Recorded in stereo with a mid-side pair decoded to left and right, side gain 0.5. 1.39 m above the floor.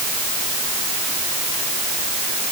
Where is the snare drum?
No snare drum in this recording.